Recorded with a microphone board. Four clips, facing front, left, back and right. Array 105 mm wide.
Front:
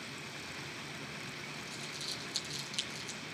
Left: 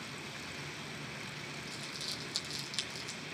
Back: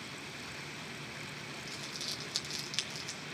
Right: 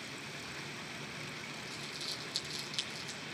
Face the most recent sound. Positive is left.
turn(degrees=175)